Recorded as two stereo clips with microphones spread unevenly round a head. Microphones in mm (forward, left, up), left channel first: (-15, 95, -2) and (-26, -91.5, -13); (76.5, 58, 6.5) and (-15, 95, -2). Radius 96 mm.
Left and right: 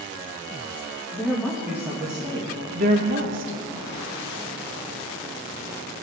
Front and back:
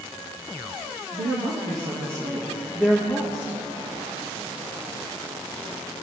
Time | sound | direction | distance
1.1 | a woman speaking | 175° left | 1.9 m